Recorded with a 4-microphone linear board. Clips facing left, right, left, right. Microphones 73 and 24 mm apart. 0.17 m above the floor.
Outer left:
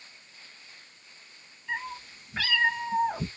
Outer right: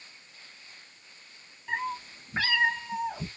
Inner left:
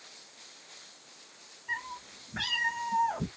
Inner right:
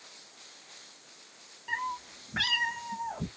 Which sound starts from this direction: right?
A cat meowing, at 1.7 s.